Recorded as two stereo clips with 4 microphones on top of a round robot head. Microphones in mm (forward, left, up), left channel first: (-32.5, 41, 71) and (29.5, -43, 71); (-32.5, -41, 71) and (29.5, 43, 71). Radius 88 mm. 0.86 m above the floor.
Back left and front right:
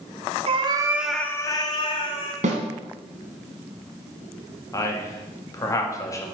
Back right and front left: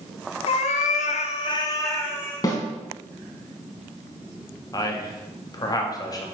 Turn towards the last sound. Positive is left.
turn(degrees=-175)